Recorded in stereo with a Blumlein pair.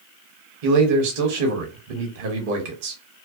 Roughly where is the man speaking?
Ahead right.